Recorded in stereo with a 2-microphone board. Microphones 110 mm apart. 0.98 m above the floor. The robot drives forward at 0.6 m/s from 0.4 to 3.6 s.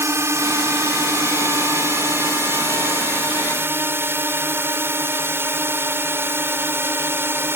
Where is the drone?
25° right (ahead or behind); by 7.6 s 20° right (ahead or behind).